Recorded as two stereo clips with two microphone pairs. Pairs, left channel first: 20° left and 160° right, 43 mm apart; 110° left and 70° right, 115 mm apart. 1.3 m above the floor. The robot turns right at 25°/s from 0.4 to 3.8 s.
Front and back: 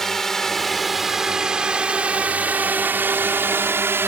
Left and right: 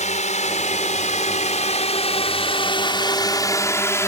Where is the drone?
100° left; by 4.1 s 175° left.